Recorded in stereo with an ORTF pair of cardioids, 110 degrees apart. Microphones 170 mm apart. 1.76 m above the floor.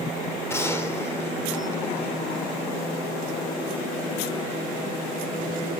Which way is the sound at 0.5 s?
15° left.